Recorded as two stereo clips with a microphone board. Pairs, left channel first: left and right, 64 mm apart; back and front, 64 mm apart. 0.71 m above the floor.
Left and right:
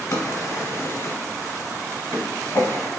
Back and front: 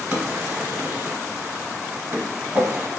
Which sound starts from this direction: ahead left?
A drawer, at 0.1 s.